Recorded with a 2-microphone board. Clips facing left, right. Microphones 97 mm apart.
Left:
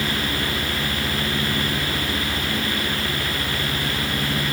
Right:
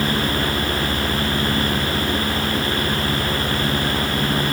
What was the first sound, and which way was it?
Only background noise.